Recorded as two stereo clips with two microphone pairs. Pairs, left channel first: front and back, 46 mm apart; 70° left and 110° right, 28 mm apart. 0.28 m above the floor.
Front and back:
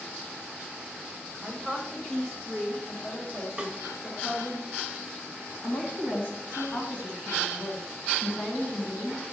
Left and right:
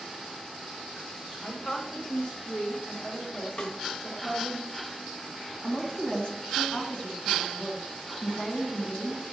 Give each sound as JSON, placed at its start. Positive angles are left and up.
{"t": 1.4, "sound": "a woman speaking", "azimuth_deg": 120, "distance_m": 1.0}
{"t": 3.6, "sound": "a snare drum", "azimuth_deg": 115, "distance_m": 1.0}
{"t": 5.6, "sound": "a woman speaking", "azimuth_deg": 25, "distance_m": 2.0}